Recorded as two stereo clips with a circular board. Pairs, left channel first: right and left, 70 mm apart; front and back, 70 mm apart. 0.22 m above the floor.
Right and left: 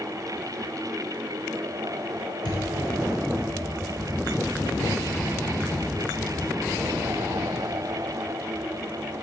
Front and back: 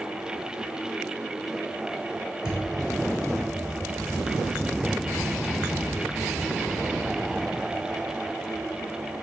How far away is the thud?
About 2 m.